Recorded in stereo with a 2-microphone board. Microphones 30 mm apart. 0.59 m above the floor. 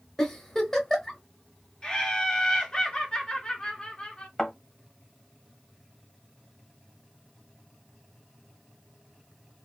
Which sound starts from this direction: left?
Laughter, at 1.8 s.